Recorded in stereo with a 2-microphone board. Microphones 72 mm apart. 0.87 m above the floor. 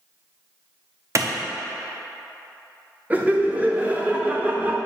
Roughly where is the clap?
Right.